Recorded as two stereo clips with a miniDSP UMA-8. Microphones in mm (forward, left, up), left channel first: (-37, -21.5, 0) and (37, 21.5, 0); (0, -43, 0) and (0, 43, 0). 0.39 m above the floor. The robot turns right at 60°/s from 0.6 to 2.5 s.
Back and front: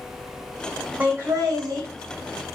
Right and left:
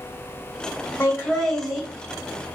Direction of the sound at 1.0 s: 35° right.